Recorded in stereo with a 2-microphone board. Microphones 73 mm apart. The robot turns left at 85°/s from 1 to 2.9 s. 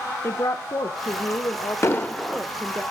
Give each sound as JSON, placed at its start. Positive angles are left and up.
{"t": 0.2, "sound": "a woman speaking", "azimuth_deg": 115, "distance_m": 0.5}
{"t": 1.8, "sound": "an explosion", "azimuth_deg": 45, "distance_m": 0.7}